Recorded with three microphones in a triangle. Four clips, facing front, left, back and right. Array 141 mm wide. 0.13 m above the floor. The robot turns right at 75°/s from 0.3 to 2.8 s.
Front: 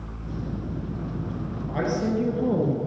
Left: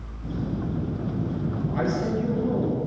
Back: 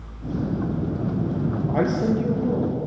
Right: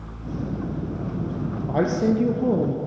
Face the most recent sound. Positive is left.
turn(degrees=-50)